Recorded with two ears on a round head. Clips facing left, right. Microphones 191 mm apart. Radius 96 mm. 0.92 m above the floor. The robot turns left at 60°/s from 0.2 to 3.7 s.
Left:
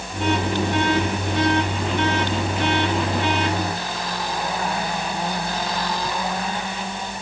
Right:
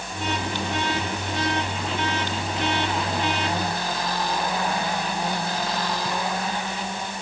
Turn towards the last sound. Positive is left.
No sound to turn to.